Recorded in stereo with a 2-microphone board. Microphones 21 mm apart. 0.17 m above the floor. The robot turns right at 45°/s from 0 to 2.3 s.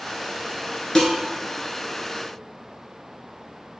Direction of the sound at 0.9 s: 30° left (ahead or behind).